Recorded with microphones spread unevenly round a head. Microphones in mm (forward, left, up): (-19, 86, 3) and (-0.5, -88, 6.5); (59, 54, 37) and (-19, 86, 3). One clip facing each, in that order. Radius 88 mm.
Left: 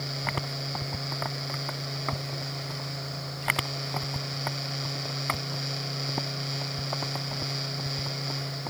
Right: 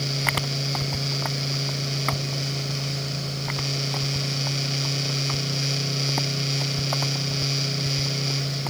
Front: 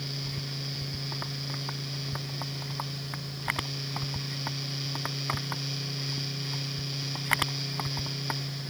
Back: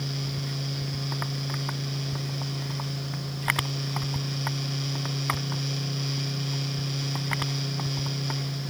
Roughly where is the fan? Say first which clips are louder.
Right 5 dB, back 5 dB; behind right.